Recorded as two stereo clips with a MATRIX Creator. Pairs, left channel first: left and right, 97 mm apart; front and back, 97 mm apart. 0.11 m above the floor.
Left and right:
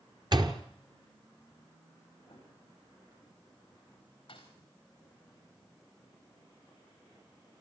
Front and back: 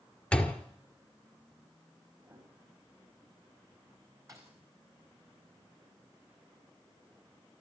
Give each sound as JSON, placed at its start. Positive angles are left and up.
{"t": 0.3, "sound": "a door slam", "azimuth_deg": -75, "distance_m": 1.7}
{"t": 2.2, "sound": "a piano", "azimuth_deg": 130, "distance_m": 8.5}
{"t": 4.3, "sound": "a thud", "azimuth_deg": 125, "distance_m": 4.0}